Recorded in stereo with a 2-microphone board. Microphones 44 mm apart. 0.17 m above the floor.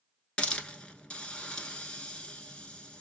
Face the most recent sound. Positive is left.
turn(degrees=30)  # may be behind; listen again after turning